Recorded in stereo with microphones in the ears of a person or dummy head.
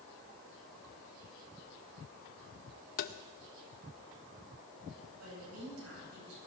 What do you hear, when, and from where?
3.0 s tapping: 50° left (ahead or behind), 0.7 m
5.2 s a woman speaking: 90° right, 9.5 m